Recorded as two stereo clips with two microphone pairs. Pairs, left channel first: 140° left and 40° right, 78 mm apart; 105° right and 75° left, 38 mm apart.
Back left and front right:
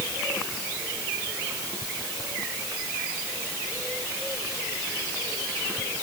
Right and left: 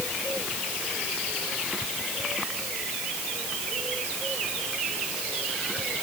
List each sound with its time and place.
Only background noise.